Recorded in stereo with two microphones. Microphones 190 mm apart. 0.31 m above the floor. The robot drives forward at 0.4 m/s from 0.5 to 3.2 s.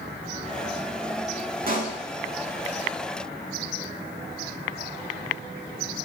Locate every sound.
1.7 s a pop: 50° right (ahead or behind), 0.6 m; by 2.0 s 40° right (ahead or behind), 0.7 m